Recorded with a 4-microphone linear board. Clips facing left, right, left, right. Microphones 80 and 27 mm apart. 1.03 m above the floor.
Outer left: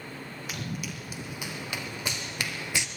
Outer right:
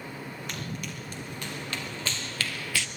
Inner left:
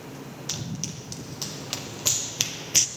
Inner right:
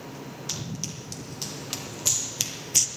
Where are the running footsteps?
5° left (ahead or behind), 2.5 m; by 2.9 s 20° left (ahead or behind), 1.1 m.